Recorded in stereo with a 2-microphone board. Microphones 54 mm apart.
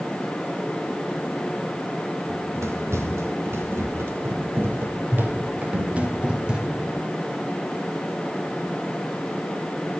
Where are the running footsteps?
60° right (ahead or behind), 5 m; by 6.9 s 10° right (ahead or behind), 4 m.